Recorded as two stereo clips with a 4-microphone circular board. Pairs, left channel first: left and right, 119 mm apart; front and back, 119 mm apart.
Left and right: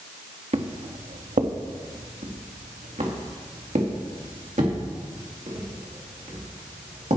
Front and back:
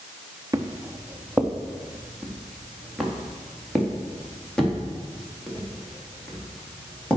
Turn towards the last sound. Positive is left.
turn(degrees=-80)